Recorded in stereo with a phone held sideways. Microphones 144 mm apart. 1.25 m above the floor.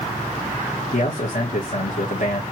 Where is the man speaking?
70° left (ahead or behind), 1.3 m.